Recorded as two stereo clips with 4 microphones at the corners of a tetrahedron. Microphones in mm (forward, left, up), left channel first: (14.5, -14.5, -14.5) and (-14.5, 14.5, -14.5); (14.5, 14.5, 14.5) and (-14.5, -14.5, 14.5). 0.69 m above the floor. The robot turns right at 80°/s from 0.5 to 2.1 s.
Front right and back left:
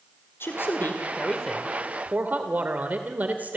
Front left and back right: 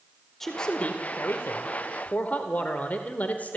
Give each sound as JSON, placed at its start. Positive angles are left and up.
{"t": 0.4, "sound": "a man speaking", "azimuth_deg": -40, "distance_m": 1.8}